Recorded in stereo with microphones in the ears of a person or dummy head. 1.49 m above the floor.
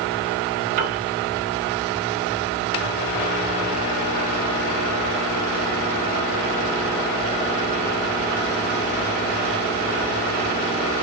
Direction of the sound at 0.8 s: 45° right (ahead or behind).